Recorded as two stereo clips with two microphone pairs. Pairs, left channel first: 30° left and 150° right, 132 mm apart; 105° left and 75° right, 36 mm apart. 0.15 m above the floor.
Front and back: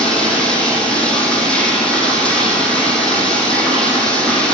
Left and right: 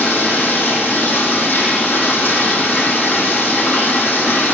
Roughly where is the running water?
Behind left.